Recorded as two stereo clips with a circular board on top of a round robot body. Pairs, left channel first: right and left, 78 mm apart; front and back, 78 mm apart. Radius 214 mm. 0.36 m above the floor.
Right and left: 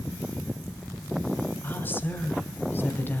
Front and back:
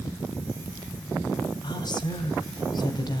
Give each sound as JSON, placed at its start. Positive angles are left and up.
{"t": 1.6, "sound": "a woman speaking", "azimuth_deg": -25, "distance_m": 3.0}